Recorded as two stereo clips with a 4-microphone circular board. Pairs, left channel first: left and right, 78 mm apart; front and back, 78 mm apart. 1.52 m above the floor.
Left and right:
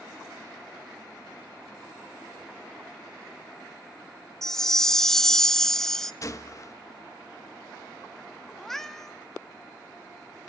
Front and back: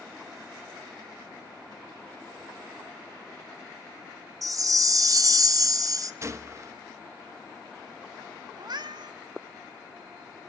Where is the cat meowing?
175° left, 1.5 m.